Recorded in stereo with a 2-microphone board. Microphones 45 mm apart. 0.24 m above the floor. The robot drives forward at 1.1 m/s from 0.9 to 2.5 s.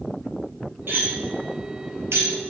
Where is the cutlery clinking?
55° right (ahead or behind), 4 m; by 2.3 s 75° right (ahead or behind), 3 m.